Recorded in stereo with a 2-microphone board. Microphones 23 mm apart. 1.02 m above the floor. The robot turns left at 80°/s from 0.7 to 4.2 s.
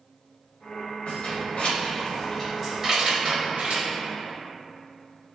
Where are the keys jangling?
55° left (ahead or behind), 1.0 m; by 3.9 s 75° right (ahead or behind), 1.0 m.